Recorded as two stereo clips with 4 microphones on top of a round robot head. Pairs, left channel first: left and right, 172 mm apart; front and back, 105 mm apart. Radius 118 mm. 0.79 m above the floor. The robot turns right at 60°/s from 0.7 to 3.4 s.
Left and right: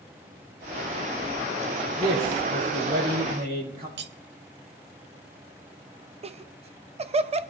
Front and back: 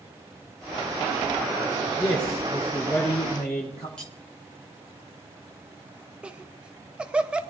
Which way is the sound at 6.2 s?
105° right.